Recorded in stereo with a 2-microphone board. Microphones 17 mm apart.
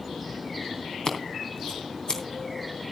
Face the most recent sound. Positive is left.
turn(degrees=45)  # may be behind; listen again after turning